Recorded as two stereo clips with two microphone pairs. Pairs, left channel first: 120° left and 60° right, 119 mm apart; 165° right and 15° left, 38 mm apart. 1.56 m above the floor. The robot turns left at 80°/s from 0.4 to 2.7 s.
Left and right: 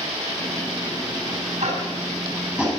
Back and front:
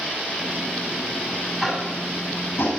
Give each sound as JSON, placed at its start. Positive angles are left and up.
{"t": 1.6, "sound": "tapping", "azimuth_deg": -60, "distance_m": 9.5}